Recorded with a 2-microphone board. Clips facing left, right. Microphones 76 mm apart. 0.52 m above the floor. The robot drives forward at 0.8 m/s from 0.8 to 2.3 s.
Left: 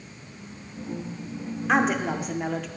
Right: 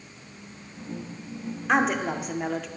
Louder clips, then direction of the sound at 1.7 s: Left 1 dB; centre (ahead or behind).